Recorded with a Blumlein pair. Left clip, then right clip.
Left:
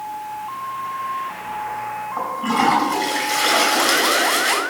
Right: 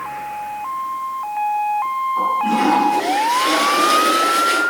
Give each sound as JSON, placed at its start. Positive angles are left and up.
{"t": 2.2, "sound": "a toilet flushing", "azimuth_deg": 65, "distance_m": 5.5}